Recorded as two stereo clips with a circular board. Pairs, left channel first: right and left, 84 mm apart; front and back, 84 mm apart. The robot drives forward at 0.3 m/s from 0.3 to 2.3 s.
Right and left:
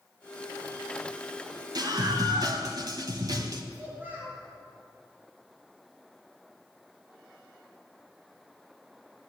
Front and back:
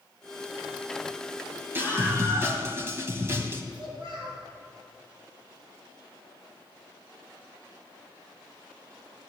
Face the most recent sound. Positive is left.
turn(degrees=160)